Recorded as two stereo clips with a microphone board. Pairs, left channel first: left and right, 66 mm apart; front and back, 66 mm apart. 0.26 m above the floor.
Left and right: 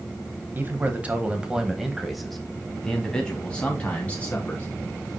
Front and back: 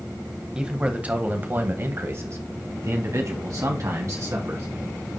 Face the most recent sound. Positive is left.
turn(degrees=155)